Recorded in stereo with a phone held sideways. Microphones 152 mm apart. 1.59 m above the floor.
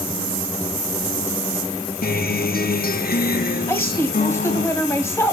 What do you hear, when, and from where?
2.0 s a guitar: 80° left, 0.7 m
3.7 s a woman speaking: 15° left (ahead or behind), 2 m